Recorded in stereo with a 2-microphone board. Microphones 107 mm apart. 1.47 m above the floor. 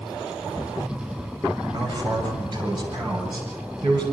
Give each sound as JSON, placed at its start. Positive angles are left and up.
{"t": 1.7, "sound": "a man speaking", "side_deg": -40, "distance_m": 6.5}